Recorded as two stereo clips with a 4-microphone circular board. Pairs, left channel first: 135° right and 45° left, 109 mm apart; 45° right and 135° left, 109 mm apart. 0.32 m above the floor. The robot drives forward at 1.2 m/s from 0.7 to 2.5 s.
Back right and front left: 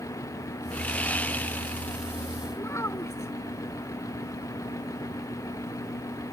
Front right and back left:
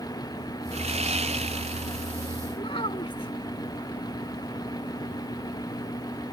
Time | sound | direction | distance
0.7 | sawing | 150° left | ?
2.6 | a child speaking | 70° right | ?